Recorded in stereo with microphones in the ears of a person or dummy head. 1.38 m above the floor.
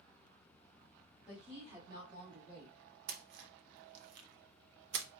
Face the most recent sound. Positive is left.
turn(degrees=-60)  # may be behind; listen again after turning